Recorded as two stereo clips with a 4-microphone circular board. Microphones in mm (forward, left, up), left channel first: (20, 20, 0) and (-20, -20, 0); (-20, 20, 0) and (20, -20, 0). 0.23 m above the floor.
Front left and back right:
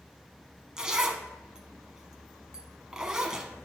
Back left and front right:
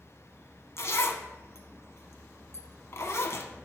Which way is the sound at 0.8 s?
150° left.